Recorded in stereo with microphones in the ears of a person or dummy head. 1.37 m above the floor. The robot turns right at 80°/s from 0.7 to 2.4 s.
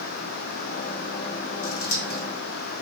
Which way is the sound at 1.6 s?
60° left (ahead or behind).